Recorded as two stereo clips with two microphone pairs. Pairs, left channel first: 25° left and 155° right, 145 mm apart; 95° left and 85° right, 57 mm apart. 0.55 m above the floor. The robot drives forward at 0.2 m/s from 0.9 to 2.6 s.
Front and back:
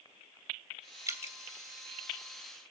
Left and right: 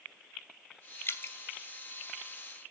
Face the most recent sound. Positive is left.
turn(degrees=145)